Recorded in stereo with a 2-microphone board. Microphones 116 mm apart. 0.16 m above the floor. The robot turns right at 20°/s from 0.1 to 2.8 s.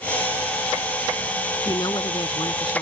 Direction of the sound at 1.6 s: 35° left (ahead or behind).